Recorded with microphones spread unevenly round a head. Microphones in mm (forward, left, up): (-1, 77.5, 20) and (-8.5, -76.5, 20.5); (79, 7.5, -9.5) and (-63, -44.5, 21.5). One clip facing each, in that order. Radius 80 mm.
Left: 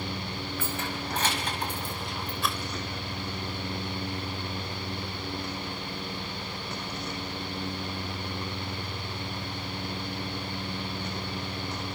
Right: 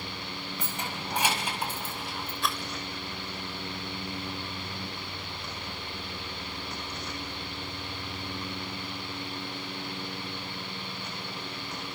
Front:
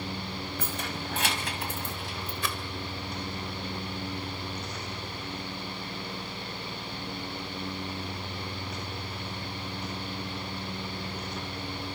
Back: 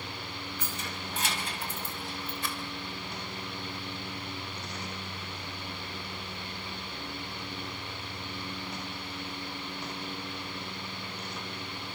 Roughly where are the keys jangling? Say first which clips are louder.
Left 2 dB, front 4 dB; ahead.